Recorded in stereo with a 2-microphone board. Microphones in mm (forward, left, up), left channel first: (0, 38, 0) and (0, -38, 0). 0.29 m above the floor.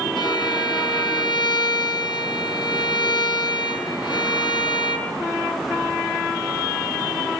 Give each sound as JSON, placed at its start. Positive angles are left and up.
{"t": 0.2, "sound": "a violin", "side_deg": 80, "distance_m": 4.0}